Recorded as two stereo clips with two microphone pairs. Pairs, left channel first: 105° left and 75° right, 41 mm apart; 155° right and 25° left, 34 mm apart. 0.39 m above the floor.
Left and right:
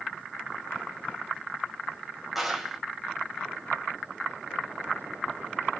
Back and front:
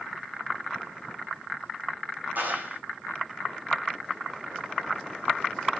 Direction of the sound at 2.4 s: 10° left.